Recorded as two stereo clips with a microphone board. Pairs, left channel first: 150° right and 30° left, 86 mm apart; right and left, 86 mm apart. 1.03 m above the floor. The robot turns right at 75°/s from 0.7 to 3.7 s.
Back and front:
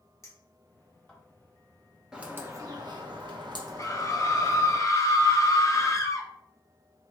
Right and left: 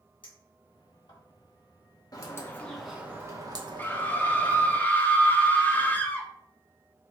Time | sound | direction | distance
0.2 | a clink | 100° right | 1.3 m
2.1 | a bird | 50° right | 0.8 m
3.8 | a scream | 145° right | 0.6 m